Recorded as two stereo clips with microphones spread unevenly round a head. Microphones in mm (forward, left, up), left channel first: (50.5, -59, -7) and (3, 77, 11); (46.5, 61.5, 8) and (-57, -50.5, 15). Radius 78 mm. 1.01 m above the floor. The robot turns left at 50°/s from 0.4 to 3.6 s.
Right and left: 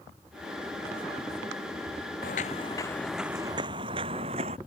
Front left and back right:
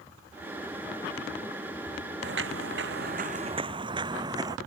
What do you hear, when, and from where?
2.2 s footsteps: 110° right; by 4.6 s 160° left